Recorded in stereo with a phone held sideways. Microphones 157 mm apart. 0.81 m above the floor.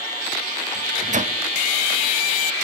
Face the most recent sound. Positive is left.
turn(degrees=-50)  # may be behind; listen again after turning